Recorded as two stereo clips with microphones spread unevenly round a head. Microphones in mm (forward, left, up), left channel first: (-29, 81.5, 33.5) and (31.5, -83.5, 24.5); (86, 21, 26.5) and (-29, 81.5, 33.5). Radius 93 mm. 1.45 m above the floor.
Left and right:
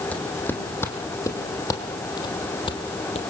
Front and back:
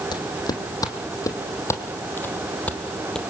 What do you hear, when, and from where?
0.1 s footsteps: 30° left, 3.5 m; by 3.2 s 60° left, 2.5 m